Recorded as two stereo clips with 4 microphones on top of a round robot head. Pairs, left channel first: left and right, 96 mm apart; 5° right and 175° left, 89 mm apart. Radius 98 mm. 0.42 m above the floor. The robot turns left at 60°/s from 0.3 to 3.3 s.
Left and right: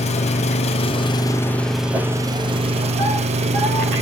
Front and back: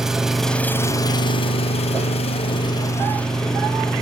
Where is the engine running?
90° left, 0.8 m; by 4.0 s 90° right, 0.8 m.